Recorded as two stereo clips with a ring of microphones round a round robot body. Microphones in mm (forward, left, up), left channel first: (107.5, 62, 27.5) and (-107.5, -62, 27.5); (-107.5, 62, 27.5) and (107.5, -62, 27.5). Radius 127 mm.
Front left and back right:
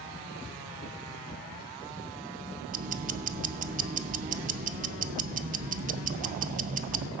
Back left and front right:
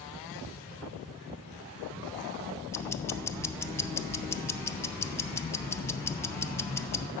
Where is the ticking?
140° right, 0.5 m.